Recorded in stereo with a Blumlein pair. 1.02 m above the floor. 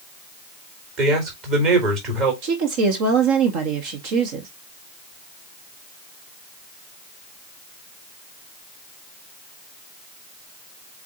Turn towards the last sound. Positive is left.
turn(degrees=-45)